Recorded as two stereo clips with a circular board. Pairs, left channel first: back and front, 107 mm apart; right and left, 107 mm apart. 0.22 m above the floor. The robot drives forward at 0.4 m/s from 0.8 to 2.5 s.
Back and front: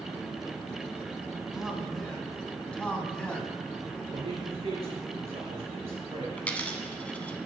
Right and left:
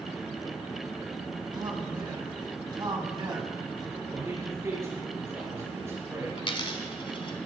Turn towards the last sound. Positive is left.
turn(degrees=-105)